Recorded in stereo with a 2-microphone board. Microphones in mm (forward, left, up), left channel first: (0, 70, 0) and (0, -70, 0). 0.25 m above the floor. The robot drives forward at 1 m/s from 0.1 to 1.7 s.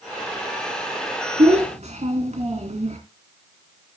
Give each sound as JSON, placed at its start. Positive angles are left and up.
{"t": 1.4, "sound": "a child speaking", "side_deg": -50, "distance_m": 2.0}